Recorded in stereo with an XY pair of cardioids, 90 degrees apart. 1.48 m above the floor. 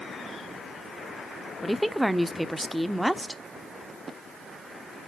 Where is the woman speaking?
5° right, 0.7 m.